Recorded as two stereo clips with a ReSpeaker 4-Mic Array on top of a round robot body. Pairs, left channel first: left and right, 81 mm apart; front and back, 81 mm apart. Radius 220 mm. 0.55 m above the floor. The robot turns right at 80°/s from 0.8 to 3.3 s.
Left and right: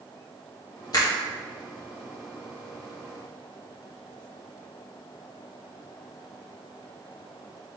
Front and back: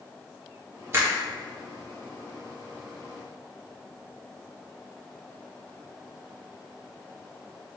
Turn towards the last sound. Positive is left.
turn(degrees=-45)